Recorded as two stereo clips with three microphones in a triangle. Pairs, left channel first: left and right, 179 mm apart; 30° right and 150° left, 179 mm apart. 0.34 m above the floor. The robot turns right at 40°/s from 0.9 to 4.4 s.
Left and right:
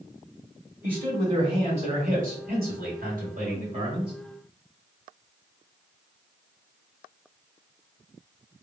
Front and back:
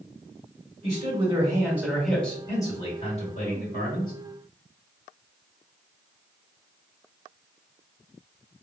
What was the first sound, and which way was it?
A man speaking, 165° right.